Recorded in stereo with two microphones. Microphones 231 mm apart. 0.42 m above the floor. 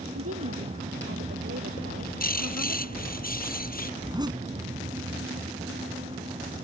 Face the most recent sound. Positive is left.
turn(degrees=-15)  # may be behind; listen again after turning